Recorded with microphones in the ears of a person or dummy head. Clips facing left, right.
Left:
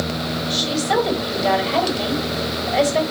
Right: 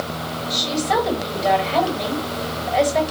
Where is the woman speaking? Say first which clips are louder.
Even; 10° left (ahead or behind), 3.5 m.